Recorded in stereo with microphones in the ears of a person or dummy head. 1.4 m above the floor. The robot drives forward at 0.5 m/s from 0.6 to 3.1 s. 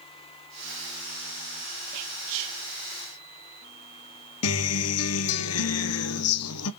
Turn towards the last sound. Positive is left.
turn(degrees=75)  # may be behind; listen again after turning